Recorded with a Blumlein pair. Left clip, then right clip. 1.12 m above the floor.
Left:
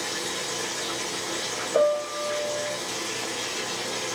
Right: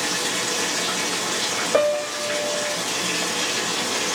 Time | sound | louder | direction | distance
0.0 | running water | right 6 dB | 40° right | 0.7 m
1.7 | a piano | right 1 dB | 55° right | 0.8 m